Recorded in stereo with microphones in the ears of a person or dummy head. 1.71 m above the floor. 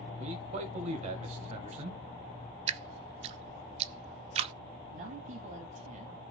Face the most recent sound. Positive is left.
turn(degrees=-50)  # may be behind; listen again after turning